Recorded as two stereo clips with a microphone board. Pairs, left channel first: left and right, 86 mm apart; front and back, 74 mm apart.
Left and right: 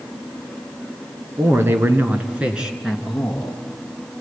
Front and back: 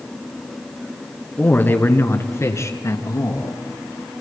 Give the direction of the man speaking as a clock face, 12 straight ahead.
2 o'clock.